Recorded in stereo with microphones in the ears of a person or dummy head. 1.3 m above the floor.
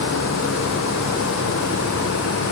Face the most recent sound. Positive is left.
No sound to turn to.